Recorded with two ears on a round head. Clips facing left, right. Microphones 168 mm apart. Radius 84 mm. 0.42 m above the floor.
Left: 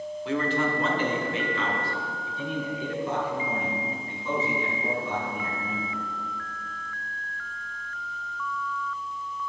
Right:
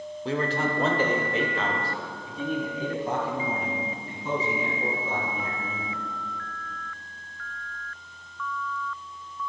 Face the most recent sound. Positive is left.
turn(degrees=-35)  # may be behind; listen again after turning